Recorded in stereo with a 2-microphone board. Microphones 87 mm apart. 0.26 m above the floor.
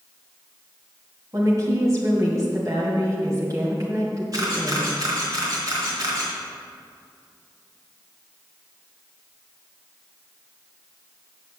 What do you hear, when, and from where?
1.3 s a woman speaking: 40° right (ahead or behind), 1.9 m
4.3 s a camera shutter: 45° right (ahead or behind), 3.5 m